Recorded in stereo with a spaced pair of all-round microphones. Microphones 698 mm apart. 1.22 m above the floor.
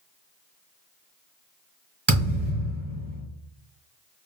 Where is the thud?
15° right (ahead or behind), 1.9 m.